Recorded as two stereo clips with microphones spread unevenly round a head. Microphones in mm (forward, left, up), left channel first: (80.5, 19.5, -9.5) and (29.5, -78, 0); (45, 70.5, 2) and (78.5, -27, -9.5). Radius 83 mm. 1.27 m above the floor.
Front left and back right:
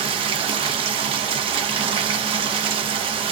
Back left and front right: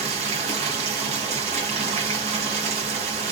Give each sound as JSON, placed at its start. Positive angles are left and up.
{"t": 0.0, "sound": "running water", "azimuth_deg": -90, "distance_m": 0.8}